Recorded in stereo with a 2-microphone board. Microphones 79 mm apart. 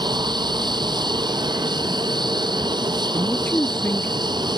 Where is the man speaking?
25° left (ahead or behind).